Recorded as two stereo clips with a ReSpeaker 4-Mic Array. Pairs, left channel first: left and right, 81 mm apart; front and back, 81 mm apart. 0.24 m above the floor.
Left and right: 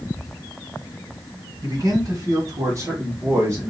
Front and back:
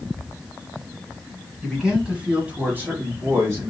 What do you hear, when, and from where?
1.6 s a man speaking: 95° right, 1.4 m; by 3.7 s 140° right, 1.8 m